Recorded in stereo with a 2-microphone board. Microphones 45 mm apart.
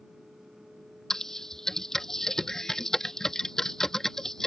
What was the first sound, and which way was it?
Typing on a keyboard, 10° left (ahead or behind).